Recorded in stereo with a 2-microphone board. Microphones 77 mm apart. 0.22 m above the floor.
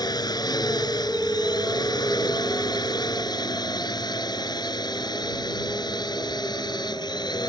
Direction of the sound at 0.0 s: 60° left (ahead or behind).